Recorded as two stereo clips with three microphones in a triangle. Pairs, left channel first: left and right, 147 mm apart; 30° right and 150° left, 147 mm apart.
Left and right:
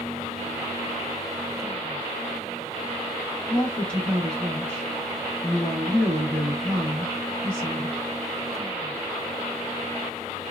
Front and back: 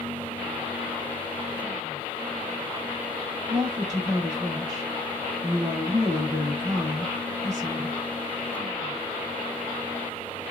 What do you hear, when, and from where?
3.5 s a woman speaking: 160° left, 1.1 m